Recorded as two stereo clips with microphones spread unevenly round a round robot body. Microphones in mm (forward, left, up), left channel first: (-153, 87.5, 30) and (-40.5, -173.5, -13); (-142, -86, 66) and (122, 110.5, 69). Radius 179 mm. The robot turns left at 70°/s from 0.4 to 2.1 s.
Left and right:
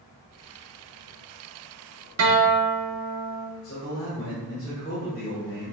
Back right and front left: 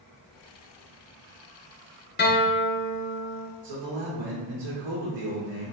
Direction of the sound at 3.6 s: 45° left.